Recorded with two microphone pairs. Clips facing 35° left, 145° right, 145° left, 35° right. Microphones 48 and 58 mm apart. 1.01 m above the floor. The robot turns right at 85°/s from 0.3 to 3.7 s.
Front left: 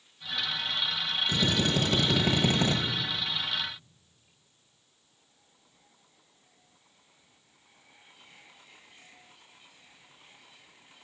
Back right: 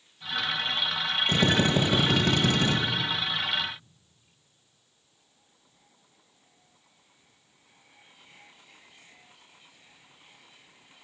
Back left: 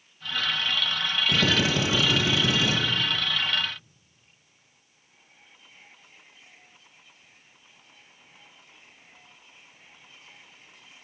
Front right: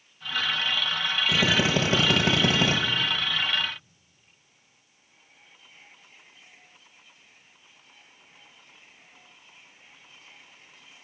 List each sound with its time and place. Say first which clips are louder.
1.3 s a drill: back right 4 dB, front right 1 dB; 120° right, 1.3 m; by 2.8 s 5° left, 1.3 m